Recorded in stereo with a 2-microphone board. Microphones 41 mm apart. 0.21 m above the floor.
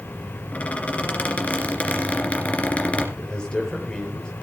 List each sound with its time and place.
0.5 s a squeak: 35° left (ahead or behind), 2.5 m
3.2 s a man speaking: 20° left (ahead or behind), 5 m